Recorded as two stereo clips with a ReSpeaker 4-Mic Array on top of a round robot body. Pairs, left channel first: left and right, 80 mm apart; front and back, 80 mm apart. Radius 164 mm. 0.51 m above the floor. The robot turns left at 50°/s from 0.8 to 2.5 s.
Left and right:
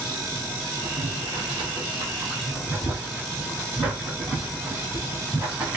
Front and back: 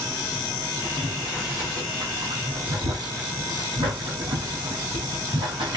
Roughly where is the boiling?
Right.